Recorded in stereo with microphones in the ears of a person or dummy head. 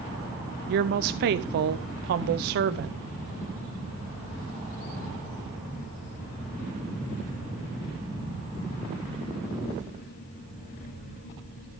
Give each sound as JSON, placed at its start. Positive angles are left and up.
{"t": 0.7, "sound": "a woman speaking", "side_deg": -65, "distance_m": 0.8}